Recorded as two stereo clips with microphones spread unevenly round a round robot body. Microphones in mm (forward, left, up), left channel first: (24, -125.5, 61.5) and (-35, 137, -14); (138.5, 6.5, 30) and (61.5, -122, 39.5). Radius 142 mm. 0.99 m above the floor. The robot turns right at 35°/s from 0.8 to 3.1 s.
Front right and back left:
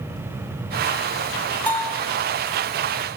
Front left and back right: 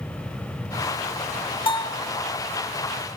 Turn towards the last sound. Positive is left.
turn(degrees=70)